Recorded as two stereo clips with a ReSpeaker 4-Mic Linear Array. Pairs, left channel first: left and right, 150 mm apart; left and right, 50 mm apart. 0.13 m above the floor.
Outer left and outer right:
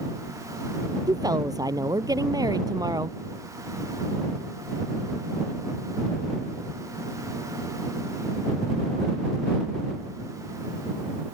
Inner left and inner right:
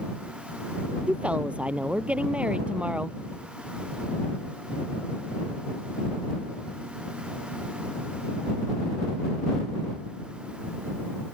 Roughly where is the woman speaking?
Right.